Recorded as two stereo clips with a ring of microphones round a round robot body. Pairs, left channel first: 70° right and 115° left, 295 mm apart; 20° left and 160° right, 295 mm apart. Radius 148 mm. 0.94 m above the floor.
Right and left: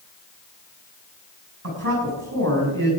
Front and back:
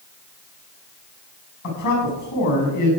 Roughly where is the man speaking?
Ahead left.